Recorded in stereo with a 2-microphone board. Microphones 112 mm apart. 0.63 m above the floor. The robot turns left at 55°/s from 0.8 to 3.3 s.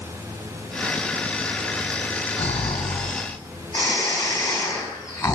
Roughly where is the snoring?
Left.